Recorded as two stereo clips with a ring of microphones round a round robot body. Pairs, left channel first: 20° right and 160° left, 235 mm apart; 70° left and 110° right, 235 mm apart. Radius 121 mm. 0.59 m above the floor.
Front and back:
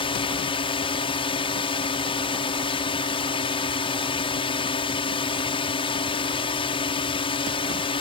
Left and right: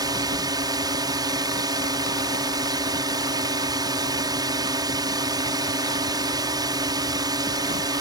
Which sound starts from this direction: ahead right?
A drone, at 0.0 s.